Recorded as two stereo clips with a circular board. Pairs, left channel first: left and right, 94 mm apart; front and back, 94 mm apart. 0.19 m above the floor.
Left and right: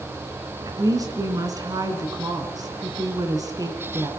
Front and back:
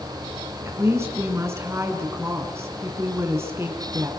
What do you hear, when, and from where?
0.7 s a woman speaking: 125° right, 2.5 m